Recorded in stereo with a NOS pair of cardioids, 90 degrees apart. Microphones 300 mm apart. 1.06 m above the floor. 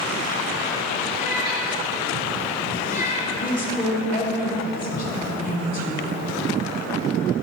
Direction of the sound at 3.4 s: 30° left.